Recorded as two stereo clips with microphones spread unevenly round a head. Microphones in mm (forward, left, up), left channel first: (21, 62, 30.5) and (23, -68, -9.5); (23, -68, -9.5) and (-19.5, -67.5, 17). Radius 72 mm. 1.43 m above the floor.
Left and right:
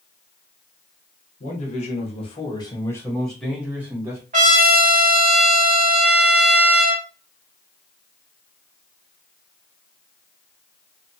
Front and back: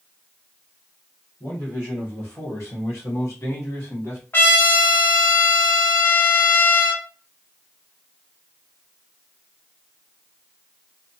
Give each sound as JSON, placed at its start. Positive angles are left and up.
{"t": 1.4, "sound": "a man speaking", "azimuth_deg": 65, "distance_m": 1.5}
{"t": 4.3, "sound": "a trumpet", "azimuth_deg": -60, "distance_m": 1.2}